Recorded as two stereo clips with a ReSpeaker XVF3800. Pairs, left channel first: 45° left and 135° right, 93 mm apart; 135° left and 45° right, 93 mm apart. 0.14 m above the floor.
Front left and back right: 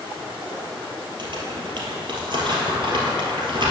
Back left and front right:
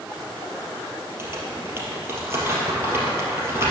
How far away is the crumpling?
About 2.5 m.